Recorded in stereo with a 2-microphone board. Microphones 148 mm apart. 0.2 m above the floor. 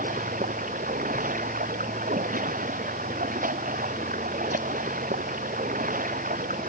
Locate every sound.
0.0 s running water: 65° right (ahead or behind)